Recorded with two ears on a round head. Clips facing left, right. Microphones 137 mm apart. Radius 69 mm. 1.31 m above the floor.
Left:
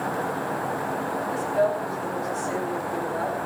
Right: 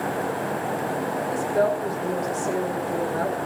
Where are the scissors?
I don't hear scissors.